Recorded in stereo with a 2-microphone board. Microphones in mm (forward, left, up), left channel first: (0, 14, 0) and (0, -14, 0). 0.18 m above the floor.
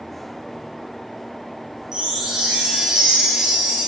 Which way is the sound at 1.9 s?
20° right (ahead or behind).